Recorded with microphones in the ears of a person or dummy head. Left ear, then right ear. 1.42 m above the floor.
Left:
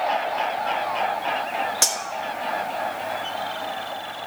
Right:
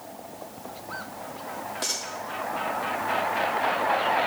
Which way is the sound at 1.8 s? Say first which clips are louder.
Left 6 dB; 50° left (ahead or behind).